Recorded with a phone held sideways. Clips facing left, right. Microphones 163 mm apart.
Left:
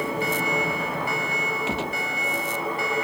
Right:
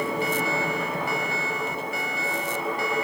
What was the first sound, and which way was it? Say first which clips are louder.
A gunshot: left 3 dB; 85° left.